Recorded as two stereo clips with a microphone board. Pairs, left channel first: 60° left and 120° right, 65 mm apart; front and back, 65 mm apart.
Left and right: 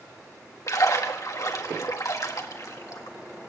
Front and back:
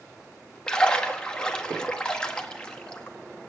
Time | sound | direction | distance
0.7 | a splash | 75° left | 1.3 m